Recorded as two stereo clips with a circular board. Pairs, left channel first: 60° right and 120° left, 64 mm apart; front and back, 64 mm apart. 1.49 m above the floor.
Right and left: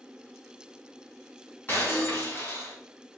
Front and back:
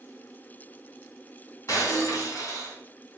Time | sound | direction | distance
1.7 | breaking glass | 5° right | 2.5 m